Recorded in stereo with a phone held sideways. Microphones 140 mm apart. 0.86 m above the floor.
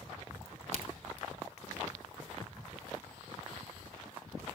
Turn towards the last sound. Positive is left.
turn(degrees=-50)  # may be behind; listen again after turning